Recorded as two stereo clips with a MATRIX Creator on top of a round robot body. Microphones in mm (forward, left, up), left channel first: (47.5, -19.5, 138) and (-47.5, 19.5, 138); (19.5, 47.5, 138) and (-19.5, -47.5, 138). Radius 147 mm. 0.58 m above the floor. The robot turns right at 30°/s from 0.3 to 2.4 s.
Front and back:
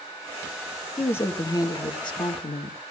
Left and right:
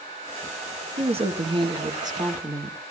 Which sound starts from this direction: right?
A woman speaking, at 1.0 s.